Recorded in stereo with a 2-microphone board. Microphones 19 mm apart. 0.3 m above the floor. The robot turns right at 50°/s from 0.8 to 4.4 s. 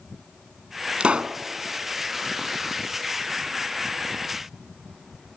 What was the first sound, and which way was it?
A pop, 85° right.